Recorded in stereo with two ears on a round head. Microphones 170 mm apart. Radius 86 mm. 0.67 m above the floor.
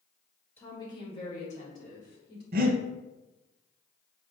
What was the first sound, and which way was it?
A woman speaking, 10° left (ahead or behind).